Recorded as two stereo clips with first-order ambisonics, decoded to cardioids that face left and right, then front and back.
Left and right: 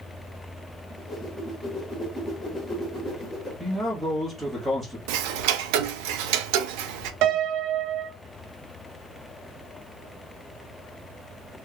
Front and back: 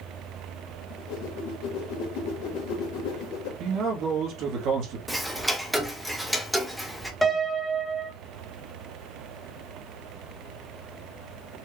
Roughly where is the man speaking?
Behind.